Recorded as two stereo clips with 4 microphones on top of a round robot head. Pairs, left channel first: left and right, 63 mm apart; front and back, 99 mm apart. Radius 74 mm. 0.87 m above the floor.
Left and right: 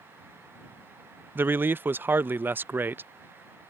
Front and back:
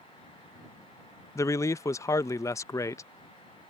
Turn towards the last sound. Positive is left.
turn(degrees=-45)